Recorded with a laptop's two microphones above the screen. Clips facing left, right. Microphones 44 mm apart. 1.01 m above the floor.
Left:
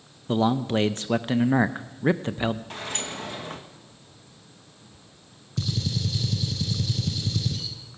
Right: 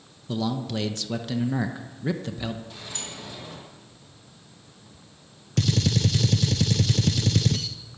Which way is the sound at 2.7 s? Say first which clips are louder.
Left 5 dB; 60° left (ahead or behind).